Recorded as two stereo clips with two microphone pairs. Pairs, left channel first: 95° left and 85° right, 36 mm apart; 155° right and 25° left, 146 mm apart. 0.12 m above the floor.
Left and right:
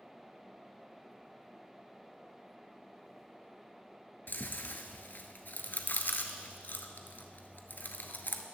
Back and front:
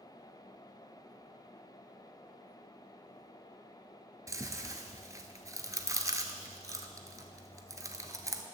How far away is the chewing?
About 0.6 m.